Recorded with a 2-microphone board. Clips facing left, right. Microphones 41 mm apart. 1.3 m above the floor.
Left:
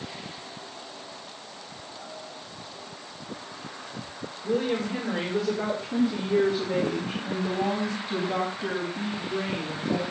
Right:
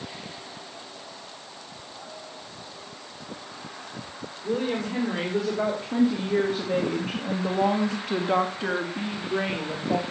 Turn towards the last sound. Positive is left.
turn(degrees=-45)  # may be behind; listen again after turning